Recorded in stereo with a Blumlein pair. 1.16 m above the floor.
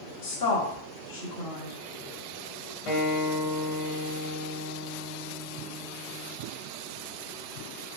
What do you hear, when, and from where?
0.2 s a woman speaking: 60° left, 0.8 m
2.9 s a guitar: 40° left, 1.0 m